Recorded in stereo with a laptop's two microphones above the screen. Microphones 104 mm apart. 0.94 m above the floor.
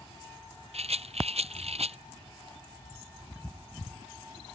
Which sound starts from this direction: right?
A rattle, at 0.7 s.